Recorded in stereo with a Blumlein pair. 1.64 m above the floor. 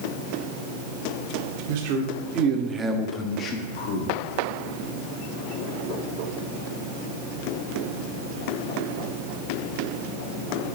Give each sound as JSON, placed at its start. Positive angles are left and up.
{"t": 1.7, "sound": "a man speaking", "azimuth_deg": -50, "distance_m": 1.6}